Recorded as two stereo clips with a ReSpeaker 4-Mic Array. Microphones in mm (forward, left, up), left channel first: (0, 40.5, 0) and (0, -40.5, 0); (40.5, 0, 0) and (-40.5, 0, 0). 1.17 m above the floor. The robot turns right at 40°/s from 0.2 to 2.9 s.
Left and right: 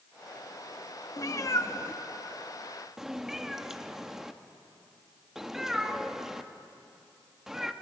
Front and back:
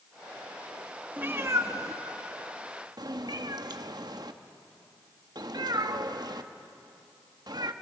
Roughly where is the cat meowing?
Behind left.